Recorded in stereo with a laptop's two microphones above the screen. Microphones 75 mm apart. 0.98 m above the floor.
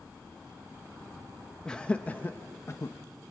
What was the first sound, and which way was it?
Laughter, 10° left (ahead or behind).